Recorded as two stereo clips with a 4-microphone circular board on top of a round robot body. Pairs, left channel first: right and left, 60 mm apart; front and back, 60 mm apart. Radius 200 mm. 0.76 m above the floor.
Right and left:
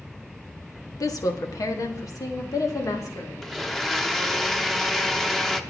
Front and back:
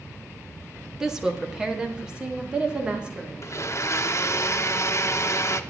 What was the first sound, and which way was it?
A woman speaking, 100° right.